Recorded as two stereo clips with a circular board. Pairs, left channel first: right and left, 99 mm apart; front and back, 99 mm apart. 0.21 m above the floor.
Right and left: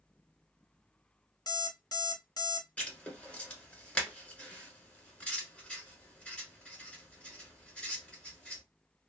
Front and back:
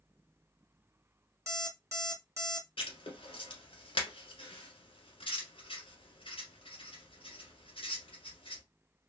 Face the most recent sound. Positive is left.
turn(degrees=-10)